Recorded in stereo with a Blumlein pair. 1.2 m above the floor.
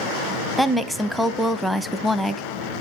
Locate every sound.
0.6 s a woman speaking: straight ahead, 0.7 m